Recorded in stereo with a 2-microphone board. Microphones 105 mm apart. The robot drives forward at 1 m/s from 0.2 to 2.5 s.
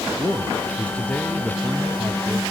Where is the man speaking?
10° left (ahead or behind), 1.5 m; by 2.4 s 5° left (ahead or behind), 2.5 m.